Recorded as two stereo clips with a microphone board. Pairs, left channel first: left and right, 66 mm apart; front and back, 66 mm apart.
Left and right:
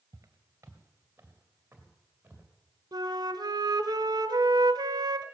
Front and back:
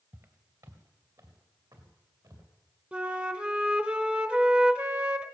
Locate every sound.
0.1 s footsteps: 130° right, 1.4 m; by 2.5 s 160° right, 4 m
2.9 s a flute: 105° right, 0.8 m